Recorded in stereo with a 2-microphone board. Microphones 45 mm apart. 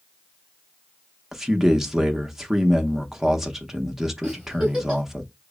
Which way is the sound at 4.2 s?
15° right (ahead or behind).